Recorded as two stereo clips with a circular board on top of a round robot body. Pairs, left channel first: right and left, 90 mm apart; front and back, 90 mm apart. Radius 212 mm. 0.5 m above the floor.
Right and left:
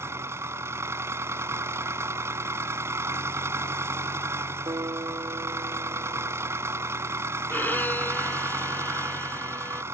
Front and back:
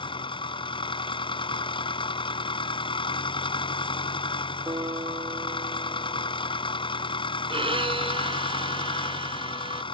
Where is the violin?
160° right.